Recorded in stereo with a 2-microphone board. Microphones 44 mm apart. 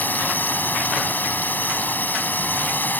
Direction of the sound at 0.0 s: 40° left (ahead or behind).